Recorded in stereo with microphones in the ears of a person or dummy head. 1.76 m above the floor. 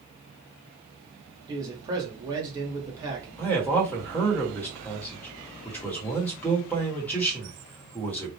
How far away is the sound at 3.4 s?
About 1.1 m.